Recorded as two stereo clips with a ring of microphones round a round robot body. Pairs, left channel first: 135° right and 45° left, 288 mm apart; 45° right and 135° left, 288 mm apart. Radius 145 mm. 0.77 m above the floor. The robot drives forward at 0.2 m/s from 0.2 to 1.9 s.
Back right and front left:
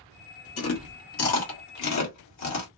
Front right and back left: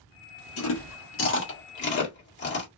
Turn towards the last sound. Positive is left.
turn(degrees=-100)